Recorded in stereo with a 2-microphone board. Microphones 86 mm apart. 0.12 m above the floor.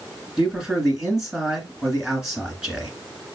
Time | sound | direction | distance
0.4 | a man speaking | 5° right (ahead or behind) | 1.7 m